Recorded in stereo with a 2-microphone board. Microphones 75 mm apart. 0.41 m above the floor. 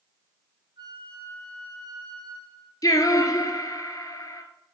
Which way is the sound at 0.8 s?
65° right (ahead or behind).